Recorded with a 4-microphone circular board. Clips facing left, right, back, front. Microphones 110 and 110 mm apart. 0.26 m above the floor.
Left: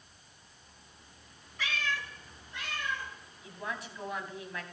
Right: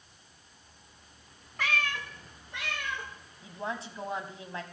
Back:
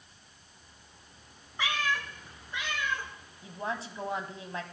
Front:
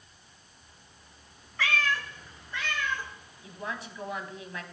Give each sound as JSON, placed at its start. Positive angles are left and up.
{"t": 1.6, "sound": "a cat meowing", "azimuth_deg": -110, "distance_m": 0.9}
{"t": 3.4, "sound": "a woman speaking", "azimuth_deg": -135, "distance_m": 1.3}